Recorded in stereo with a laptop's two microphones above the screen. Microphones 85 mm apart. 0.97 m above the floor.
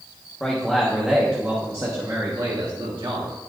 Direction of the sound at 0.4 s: 10° left (ahead or behind).